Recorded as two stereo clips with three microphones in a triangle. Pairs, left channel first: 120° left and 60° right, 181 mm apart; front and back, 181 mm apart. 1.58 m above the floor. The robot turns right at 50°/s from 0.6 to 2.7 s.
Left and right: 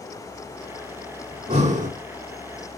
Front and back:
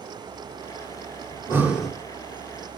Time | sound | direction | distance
1.3 | breathing | 115° right | 1.7 m